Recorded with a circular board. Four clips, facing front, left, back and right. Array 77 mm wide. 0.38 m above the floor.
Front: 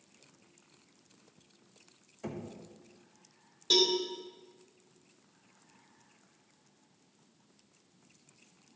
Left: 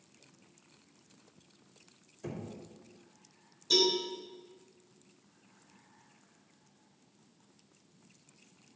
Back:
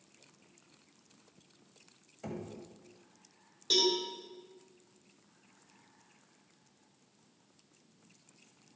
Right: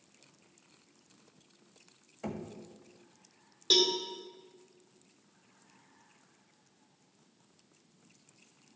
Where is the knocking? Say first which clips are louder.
Right 2 dB, front 1 dB; 95° right, 1.7 m.